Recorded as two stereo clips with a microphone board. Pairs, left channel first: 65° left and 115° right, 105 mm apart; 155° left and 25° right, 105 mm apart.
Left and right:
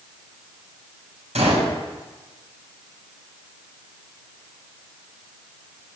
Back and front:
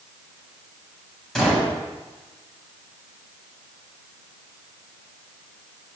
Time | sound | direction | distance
1.4 | a gunshot | 115° right | 7 m